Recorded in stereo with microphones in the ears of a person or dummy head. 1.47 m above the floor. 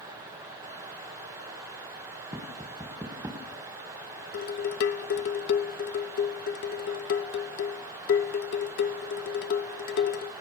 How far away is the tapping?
About 1.6 m.